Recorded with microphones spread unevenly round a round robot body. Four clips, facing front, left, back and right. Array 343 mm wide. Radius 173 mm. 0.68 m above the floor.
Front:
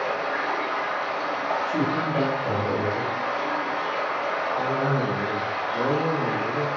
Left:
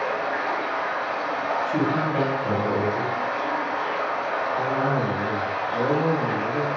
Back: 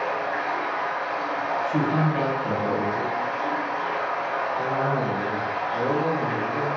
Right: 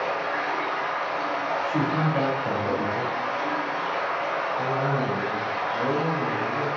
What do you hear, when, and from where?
0.0 s running water: 55° left, 0.9 m
1.7 s a man speaking: 115° left, 1.7 m
4.6 s a cough: 85° left, 1.8 m